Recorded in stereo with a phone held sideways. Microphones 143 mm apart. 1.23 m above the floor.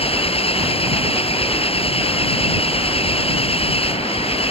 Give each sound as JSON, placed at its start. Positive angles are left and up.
{"t": 0.0, "sound": "an engine running", "side_deg": 40}